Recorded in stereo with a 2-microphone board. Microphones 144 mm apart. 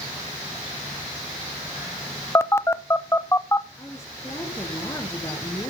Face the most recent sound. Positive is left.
turn(degrees=20)  # may be behind; listen again after turning